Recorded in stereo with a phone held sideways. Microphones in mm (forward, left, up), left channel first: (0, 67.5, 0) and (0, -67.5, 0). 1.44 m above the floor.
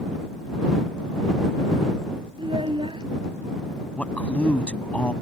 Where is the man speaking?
10° left (ahead or behind).